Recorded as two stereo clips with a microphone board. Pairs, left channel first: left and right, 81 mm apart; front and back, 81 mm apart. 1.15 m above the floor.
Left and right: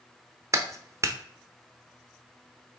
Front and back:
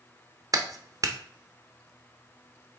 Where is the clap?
140° right, 0.8 m.